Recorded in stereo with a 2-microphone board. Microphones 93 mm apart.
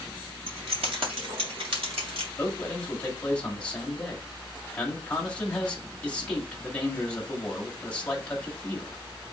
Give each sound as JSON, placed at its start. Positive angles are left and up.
{"t": 0.5, "sound": "keys jangling", "side_deg": -85, "distance_m": 2.5}
{"t": 2.4, "sound": "a man speaking", "side_deg": 10, "distance_m": 1.7}